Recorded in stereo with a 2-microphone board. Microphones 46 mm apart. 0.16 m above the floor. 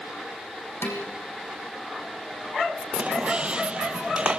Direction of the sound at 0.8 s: 60° left (ahead or behind).